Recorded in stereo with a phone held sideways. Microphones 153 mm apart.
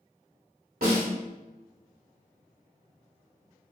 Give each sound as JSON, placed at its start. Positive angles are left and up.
{"t": 0.8, "sound": "a snare drum", "side_deg": -75, "distance_m": 1.7}